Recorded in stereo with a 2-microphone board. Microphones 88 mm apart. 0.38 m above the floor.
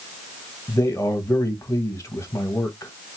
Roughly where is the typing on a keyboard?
I don't hear typing on a keyboard.